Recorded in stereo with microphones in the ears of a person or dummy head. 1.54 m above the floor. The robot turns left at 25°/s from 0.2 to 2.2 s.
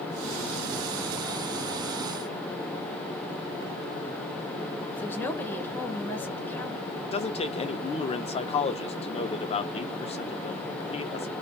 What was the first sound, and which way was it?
A woman speaking, 15° left (ahead or behind).